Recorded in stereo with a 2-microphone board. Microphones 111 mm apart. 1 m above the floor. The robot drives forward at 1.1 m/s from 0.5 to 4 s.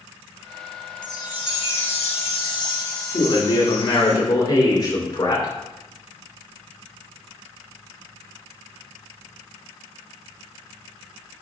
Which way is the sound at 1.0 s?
40° left (ahead or behind).